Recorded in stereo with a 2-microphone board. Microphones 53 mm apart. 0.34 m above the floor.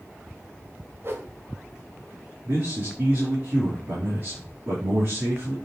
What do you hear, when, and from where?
1.0 s a whoosh: 45° right (ahead or behind), 1.4 m
2.5 s a man speaking: 50° right (ahead or behind), 4.5 m